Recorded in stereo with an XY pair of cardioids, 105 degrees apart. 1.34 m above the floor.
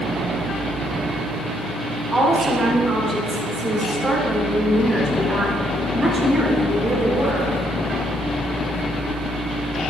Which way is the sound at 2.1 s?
25° right.